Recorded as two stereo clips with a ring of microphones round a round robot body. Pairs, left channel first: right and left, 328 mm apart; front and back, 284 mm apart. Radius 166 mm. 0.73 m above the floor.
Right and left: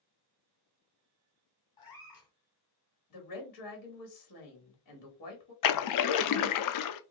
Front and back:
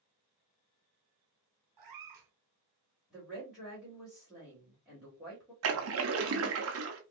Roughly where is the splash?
Behind right.